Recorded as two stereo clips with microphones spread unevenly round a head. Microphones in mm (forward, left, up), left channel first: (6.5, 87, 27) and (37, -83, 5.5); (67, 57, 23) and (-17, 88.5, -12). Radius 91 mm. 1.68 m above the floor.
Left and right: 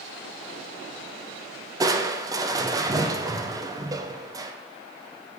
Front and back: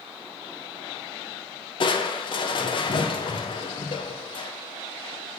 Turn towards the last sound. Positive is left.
turn(degrees=-10)